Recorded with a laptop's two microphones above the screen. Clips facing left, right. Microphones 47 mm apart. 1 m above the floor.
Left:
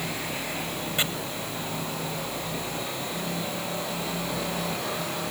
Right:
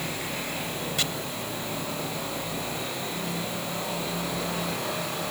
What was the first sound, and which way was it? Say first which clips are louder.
Chopping: left 3 dB; 25° left (ahead or behind).